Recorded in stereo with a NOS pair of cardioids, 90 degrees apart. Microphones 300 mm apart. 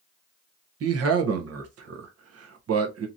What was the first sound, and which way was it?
A man speaking, 55° right.